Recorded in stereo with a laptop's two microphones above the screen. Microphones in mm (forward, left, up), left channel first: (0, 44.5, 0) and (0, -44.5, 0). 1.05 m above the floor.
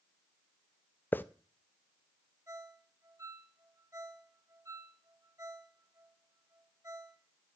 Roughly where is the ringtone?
Right.